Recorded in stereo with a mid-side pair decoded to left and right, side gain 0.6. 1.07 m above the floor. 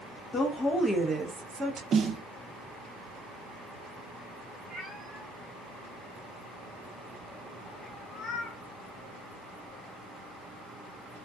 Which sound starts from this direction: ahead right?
A snare drum, at 1.9 s.